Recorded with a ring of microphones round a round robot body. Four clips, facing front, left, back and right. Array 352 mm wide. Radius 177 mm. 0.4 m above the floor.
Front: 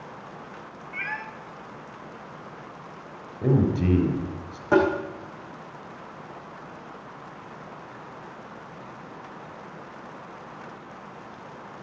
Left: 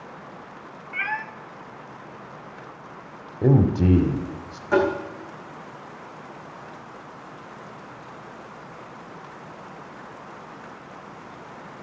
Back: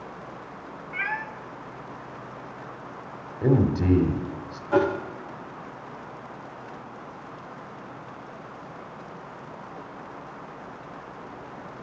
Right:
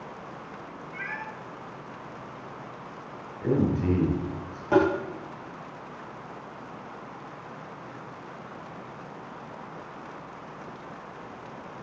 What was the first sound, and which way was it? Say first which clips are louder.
A cat meowing: left 8 dB, back 3 dB; 110° left.